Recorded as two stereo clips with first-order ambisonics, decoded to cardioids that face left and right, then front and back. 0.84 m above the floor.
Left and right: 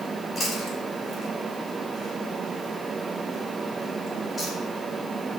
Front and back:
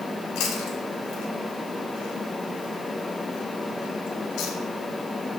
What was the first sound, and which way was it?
Chewing, 10° left.